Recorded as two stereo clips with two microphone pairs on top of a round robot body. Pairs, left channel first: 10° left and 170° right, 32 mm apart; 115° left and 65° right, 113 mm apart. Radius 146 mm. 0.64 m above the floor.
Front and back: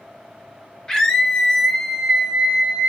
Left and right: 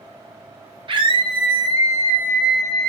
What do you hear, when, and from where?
0.9 s a scream: 45° right, 1.6 m; by 2.9 s 165° right, 1.1 m